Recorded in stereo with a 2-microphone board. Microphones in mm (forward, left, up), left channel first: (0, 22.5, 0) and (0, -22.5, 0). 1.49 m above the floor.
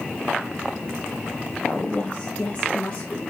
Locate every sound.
1.7 s a woman speaking: 40° left (ahead or behind), 0.6 m; by 3.2 s 25° left (ahead or behind), 2.5 m